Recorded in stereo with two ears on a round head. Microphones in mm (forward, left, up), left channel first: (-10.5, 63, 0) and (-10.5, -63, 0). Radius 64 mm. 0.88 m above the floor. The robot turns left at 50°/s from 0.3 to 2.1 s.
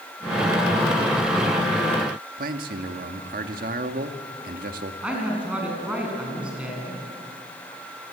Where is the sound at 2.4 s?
65° right (ahead or behind), 1.7 m.